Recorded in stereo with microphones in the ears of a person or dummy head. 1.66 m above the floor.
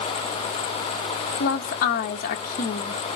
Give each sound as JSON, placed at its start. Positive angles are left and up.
{"t": 1.4, "sound": "a woman speaking", "side_deg": 50, "distance_m": 1.1}